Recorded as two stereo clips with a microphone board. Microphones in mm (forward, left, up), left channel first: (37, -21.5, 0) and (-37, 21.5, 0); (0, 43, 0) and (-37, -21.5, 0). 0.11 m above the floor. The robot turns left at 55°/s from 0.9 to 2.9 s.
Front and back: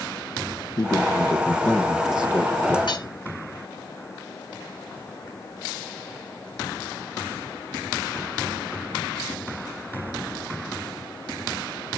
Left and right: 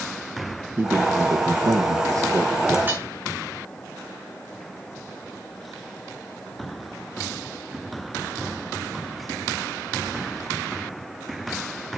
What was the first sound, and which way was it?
A man speaking, 65° right.